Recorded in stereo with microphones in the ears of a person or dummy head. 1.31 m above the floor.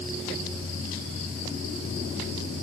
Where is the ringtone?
I don't hear a ringtone.